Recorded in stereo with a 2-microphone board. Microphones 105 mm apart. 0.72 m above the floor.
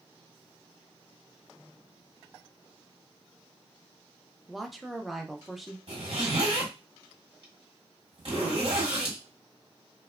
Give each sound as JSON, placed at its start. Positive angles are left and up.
{"t": 4.5, "sound": "a woman speaking", "side_deg": 0, "distance_m": 0.5}
{"t": 5.9, "sound": "a zipper", "side_deg": -60, "distance_m": 1.3}